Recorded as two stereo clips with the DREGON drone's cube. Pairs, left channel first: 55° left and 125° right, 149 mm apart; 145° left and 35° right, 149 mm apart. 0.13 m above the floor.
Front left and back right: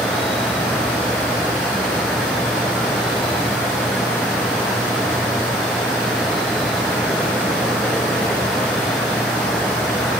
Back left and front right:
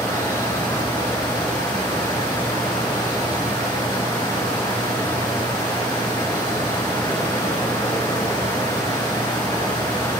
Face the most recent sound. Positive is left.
turn(degrees=140)